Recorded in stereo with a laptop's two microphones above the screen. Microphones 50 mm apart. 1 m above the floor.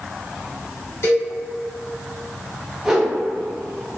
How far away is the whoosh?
About 0.5 m.